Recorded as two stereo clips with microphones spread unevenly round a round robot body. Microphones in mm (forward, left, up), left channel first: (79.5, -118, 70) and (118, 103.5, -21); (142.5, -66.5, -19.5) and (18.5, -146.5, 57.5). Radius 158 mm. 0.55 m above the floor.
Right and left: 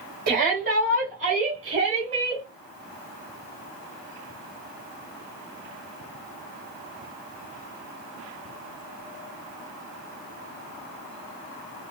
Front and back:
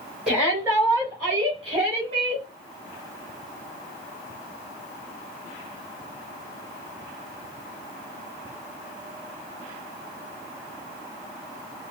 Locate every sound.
0.3 s a shout: 110° left, 2.0 m; by 2.5 s 140° left, 2.5 m